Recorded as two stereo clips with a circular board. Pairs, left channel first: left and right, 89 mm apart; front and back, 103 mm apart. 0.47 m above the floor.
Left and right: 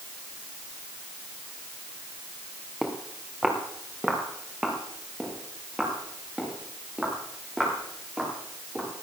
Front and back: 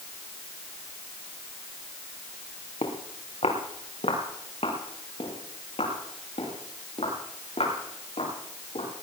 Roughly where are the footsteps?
Ahead.